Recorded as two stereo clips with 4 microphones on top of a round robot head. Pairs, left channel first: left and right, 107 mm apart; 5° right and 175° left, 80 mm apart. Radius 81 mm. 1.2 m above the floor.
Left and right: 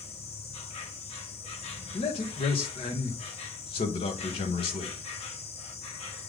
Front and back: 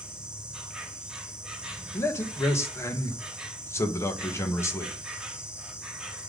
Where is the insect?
95° left, 2.0 m.